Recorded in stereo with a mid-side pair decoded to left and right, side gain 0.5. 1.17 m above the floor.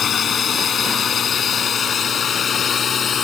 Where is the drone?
45° left; by 3.2 s 40° left.